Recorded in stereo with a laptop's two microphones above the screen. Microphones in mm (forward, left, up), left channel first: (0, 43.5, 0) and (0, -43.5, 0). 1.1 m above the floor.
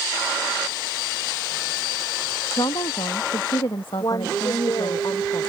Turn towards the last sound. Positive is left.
turn(degrees=50)  # may be behind; listen again after turning